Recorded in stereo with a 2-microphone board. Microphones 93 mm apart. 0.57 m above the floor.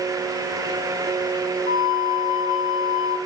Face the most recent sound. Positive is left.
turn(degrees=55)  # may be behind; listen again after turning